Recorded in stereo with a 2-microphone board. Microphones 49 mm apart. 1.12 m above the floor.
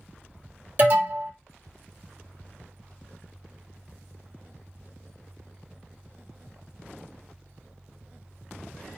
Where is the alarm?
40° right (ahead or behind), 1.2 m.